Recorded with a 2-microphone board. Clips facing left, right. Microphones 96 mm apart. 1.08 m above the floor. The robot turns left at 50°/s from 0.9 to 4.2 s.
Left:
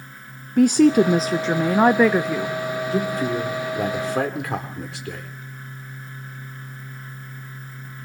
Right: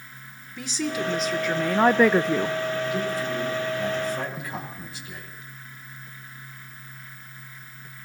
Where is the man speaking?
145° left, 4 m; by 5.3 s 80° left, 4 m.